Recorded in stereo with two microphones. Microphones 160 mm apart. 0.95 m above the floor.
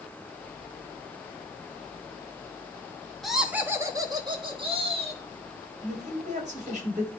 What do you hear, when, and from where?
3.2 s laughter: centre (ahead or behind), 1.5 m; by 5.2 s 40° right (ahead or behind), 2.5 m
5.8 s a man speaking: 50° right (ahead or behind), 3 m